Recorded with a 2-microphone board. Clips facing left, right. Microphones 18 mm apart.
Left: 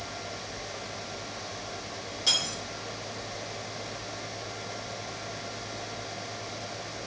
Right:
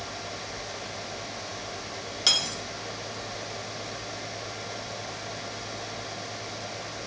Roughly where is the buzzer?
No buzzer in this recording.